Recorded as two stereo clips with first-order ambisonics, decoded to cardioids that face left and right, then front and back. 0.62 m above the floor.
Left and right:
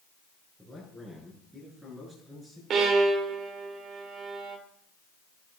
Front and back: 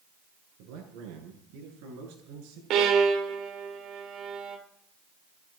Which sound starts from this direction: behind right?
A violin, at 2.7 s.